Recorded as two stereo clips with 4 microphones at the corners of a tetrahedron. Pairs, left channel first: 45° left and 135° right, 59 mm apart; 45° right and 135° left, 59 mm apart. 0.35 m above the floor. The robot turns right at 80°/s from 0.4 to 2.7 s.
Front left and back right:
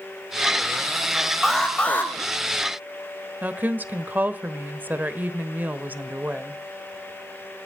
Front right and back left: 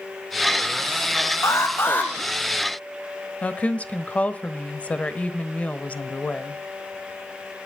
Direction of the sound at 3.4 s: 95° right.